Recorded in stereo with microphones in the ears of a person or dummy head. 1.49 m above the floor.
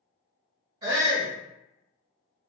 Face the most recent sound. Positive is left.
turn(degrees=-30)  # may be behind; listen again after turning